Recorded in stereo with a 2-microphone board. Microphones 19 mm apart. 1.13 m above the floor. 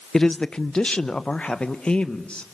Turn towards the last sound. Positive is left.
turn(degrees=65)  # may be behind; listen again after turning